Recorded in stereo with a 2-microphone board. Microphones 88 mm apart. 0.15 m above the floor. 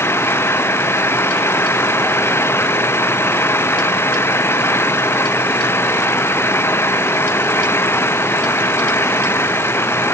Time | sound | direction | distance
0.0 | an engine running | 30° left (ahead or behind) | ?